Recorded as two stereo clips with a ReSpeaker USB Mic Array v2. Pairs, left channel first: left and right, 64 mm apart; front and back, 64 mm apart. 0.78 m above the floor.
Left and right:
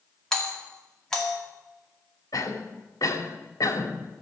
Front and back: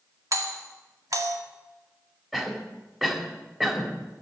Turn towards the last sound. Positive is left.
turn(degrees=95)